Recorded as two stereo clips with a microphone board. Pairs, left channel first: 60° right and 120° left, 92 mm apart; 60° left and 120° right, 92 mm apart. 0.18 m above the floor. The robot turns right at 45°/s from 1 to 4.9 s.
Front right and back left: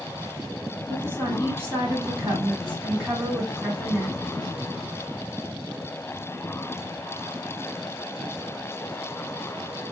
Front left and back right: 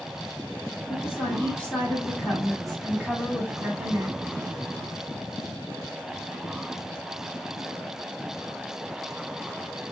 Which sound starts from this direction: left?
A woman speaking, at 0.9 s.